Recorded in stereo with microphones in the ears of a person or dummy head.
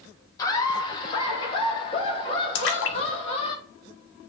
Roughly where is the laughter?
Left.